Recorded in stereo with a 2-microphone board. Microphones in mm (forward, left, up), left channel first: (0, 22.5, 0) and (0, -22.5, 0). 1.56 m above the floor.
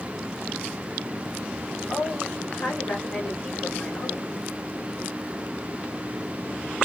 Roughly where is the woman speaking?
Left.